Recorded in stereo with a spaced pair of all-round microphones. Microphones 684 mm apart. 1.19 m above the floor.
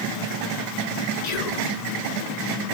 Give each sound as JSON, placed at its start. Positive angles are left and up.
{"t": 1.2, "sound": "whispering", "side_deg": 70, "distance_m": 1.4}